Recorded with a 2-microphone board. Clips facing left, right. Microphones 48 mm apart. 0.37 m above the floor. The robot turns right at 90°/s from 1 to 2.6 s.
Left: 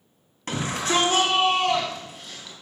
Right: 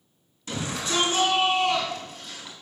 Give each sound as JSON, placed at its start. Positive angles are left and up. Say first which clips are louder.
{"t": 0.5, "sound": "a shout", "louder": "left 4 dB", "azimuth_deg": 65, "distance_m": 3.5}